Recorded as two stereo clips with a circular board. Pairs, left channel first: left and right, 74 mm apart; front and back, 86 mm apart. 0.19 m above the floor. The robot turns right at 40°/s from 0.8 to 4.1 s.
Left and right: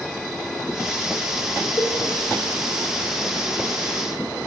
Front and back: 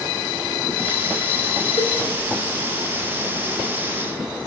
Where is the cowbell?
40° left, 3 m; by 1.9 s 45° left, 3 m.